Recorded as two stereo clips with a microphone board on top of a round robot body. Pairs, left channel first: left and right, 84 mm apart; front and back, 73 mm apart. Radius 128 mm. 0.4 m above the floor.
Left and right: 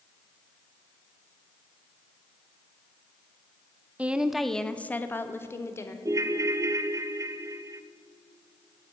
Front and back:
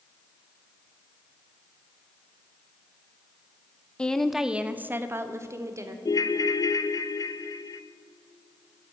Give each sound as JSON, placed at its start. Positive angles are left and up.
{"t": 4.0, "sound": "a woman speaking", "azimuth_deg": -50, "distance_m": 0.8}
{"t": 6.0, "sound": "a ringtone", "azimuth_deg": -35, "distance_m": 0.5}